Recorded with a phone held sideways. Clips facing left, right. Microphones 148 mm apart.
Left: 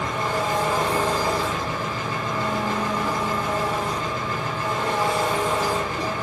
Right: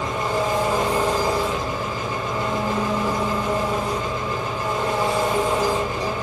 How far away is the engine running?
About 1.1 m.